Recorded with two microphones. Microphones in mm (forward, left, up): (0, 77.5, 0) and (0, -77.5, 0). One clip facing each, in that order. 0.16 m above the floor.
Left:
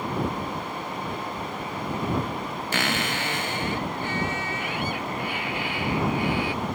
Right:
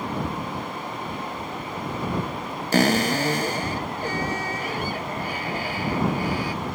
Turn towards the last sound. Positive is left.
turn(degrees=-40)  # may be behind; listen again after turning